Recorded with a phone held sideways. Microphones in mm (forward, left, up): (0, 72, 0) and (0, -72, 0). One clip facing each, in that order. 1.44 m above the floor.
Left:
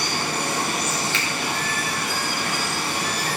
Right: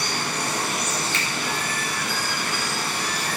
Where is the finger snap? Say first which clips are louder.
Left 1 dB; 40° right (ahead or behind), 1.6 m.